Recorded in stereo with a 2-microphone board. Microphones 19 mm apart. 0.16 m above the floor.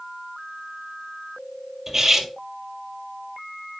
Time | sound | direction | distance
1.9 | cutlery clinking | 20° right (ahead or behind) | 2.5 m